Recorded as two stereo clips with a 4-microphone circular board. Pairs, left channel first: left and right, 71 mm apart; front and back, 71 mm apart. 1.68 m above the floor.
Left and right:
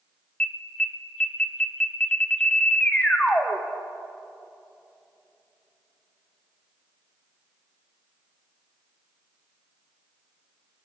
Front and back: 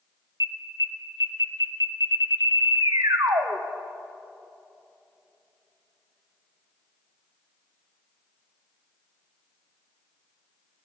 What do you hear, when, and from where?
0.4 s an alarm: 165° left, 1.7 m